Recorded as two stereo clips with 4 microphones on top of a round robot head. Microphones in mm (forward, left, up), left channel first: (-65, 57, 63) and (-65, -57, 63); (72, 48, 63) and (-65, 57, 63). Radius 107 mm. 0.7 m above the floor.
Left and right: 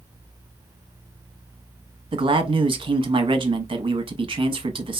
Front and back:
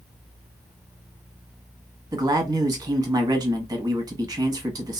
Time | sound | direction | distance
2.1 | a man speaking | 125° right | 0.8 m